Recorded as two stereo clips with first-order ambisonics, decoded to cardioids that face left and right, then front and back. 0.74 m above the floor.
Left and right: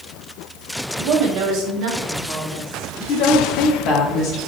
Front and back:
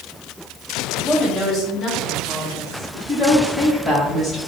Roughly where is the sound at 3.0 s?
Left.